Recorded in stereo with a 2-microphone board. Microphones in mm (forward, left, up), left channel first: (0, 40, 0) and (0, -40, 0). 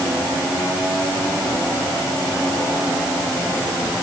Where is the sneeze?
I don't hear a sneeze.